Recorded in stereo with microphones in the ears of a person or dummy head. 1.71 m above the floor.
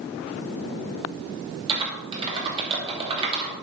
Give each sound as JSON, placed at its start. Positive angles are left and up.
{"t": 1.7, "sound": "typing on a keyboard", "side_deg": -30, "distance_m": 2.5}